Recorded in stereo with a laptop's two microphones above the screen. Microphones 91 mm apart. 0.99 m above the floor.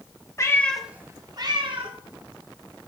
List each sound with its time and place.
0.4 s a cat meowing: 35° left (ahead or behind), 0.9 m; by 2.0 s 65° right (ahead or behind), 1.8 m